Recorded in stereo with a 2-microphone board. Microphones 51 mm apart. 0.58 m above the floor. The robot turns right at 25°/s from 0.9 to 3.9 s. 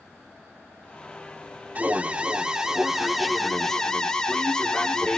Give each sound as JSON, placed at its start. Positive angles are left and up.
{"t": 1.8, "sound": "an alarm", "azimuth_deg": -40, "distance_m": 0.9}